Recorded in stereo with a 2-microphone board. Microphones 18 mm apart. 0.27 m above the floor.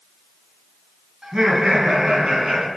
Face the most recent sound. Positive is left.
turn(degrees=-45)  # may be behind; listen again after turning